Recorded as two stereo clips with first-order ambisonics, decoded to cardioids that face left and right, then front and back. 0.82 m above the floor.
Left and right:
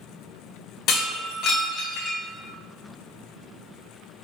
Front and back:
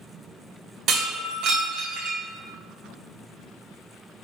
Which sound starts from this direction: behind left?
Breaking glass, at 0.9 s.